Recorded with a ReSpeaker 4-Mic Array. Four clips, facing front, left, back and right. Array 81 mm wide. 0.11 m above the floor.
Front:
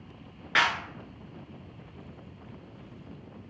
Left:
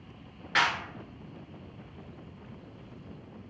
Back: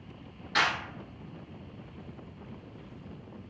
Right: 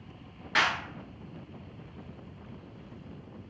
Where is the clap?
5° left, 1.0 m.